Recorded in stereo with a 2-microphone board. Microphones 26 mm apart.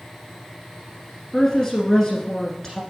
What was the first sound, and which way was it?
A woman speaking, 20° left (ahead or behind).